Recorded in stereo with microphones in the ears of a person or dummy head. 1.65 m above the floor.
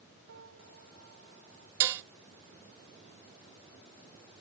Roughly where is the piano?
Right.